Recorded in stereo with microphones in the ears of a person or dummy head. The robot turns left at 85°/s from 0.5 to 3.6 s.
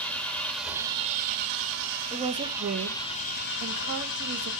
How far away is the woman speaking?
About 1.2 m.